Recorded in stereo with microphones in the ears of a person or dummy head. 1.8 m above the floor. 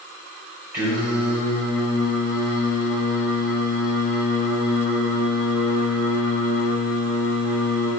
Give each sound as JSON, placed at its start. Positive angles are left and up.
{"t": 0.7, "sound": "singing", "side_deg": -15, "distance_m": 3.5}